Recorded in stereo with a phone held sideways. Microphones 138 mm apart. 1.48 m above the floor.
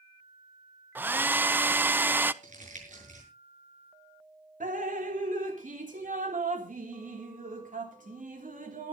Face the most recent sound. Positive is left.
turn(degrees=-70)  # may be behind; listen again after turning